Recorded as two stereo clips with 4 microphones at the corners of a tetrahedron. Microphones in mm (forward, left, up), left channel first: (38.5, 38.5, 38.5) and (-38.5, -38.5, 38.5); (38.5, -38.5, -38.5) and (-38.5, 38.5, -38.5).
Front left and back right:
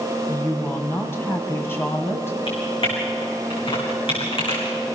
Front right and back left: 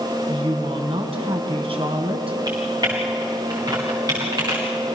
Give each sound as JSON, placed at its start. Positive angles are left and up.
{"t": 0.3, "sound": "a woman speaking", "azimuth_deg": 110, "distance_m": 3.0}
{"t": 2.5, "sound": "typing on a keyboard", "azimuth_deg": 80, "distance_m": 6.5}